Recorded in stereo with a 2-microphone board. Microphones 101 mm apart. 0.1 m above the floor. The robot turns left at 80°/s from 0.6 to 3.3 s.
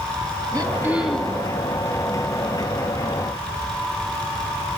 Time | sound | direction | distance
0.5 | throat clearing | 140° right | 3.5 m